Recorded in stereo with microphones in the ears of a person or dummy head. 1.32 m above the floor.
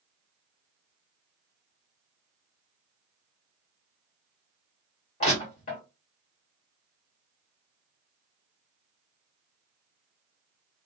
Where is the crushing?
45° left (ahead or behind), 1.4 m.